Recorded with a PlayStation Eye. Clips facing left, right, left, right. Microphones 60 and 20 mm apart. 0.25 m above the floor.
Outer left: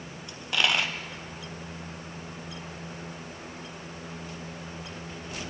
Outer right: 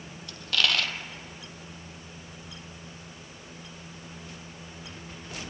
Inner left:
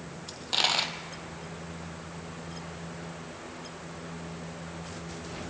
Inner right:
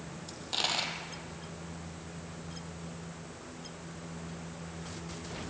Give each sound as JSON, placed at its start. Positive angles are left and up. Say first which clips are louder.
{"t": 0.3, "sound": "a dropped coin", "louder": "outer left 1 dB, inner left 6 dB", "side_deg": 20, "distance_m": 1.4}